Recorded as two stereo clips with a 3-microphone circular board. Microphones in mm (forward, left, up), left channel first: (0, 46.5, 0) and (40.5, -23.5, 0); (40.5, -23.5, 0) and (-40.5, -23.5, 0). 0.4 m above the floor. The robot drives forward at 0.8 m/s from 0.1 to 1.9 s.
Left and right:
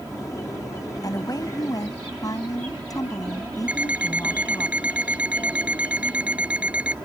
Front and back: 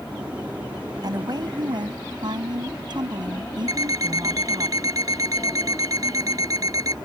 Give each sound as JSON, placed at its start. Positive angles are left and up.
{"t": 1.0, "sound": "a woman speaking", "azimuth_deg": 155}
{"t": 3.7, "sound": "an alarm clock", "azimuth_deg": -135}